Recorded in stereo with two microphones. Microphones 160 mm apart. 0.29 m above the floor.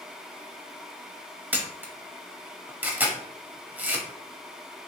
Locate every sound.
1.5 s a camera shutter: 10° right (ahead or behind), 0.6 m